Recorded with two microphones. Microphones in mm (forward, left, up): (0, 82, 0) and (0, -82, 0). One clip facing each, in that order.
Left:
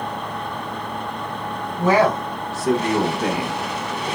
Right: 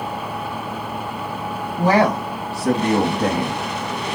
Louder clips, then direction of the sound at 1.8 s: Even; 35° right (ahead or behind).